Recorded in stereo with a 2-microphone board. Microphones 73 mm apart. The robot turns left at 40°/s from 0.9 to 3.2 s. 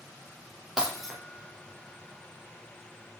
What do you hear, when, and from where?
0.8 s breaking glass: 10° right (ahead or behind), 3 m; by 1.1 s centre (ahead or behind), 3 m